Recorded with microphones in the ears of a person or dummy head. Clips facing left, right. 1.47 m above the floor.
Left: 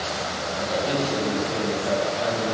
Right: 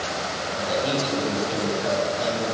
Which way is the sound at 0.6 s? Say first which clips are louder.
Even; 50° right (ahead or behind).